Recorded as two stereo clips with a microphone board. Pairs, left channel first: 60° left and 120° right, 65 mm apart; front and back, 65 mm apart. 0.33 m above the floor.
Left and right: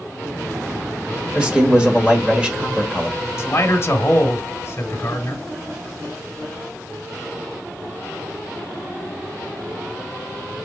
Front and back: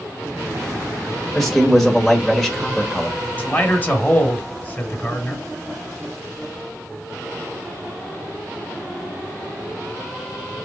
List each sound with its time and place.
1.4 s a man speaking: 85° right, 1.3 m
3.4 s a man speaking: 50° left, 1.2 m